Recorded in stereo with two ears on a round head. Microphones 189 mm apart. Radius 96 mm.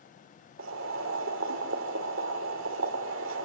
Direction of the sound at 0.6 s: 65° right (ahead or behind).